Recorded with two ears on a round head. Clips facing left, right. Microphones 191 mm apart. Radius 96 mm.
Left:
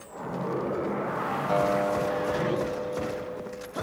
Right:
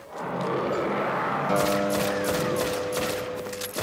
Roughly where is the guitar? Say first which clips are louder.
Right 1 dB; right.